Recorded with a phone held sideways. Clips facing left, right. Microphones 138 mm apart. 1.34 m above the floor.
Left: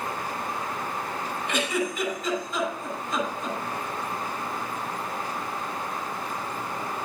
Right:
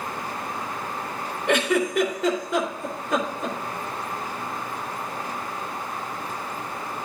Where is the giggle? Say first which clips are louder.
Right 7 dB; 80° right, 3 m.